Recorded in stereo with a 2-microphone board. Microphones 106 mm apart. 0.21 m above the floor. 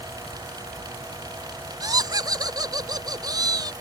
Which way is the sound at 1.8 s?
40° right (ahead or behind).